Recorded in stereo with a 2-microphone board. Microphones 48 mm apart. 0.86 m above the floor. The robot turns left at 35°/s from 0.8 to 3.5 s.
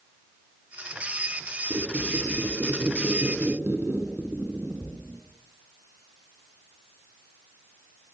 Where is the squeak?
75° right, 4.5 m; by 5.2 s 140° right, 4.5 m.